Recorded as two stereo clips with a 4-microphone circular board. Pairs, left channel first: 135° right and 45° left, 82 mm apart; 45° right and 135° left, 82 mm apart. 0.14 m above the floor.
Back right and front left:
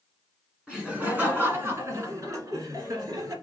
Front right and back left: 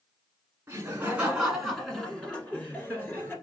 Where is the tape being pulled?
I don't hear tape being pulled.